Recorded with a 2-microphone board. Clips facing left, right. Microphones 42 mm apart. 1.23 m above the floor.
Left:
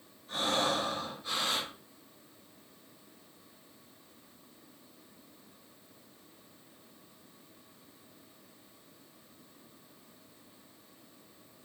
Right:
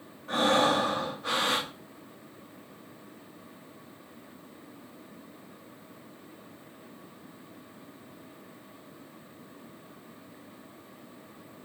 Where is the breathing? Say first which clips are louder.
Right 7 dB; 70° right (ahead or behind), 1.7 m.